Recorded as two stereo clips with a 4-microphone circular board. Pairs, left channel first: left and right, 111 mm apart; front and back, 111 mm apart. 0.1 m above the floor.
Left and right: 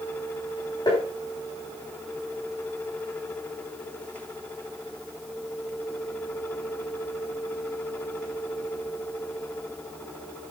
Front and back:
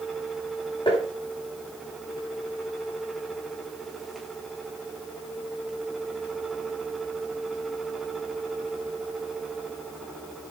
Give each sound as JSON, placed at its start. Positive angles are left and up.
{"t": 0.9, "sound": "tapping", "azimuth_deg": 40, "distance_m": 5.5}